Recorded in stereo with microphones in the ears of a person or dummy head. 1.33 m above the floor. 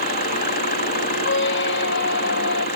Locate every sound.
0.0 s an engine running: 45° left (ahead or behind)
1.2 s a squeak: 65° left (ahead or behind)